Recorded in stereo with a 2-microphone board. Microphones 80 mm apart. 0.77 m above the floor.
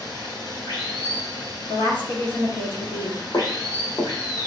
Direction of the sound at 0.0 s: 55° left (ahead or behind).